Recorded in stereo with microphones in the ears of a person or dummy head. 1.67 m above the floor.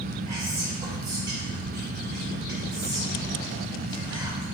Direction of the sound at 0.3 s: 25° right (ahead or behind).